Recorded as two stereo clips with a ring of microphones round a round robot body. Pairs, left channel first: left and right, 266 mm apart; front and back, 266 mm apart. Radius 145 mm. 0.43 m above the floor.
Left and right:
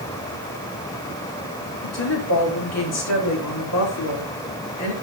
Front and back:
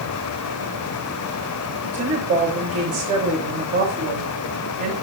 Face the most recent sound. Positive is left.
turn(degrees=115)